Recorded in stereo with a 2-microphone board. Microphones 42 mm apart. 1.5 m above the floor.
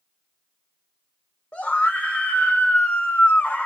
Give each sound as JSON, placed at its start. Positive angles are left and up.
{"t": 1.5, "sound": "a scream", "side_deg": 35, "distance_m": 1.2}